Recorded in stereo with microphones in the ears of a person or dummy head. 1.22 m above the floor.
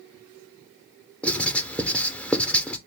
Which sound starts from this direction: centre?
Writing, at 1.2 s.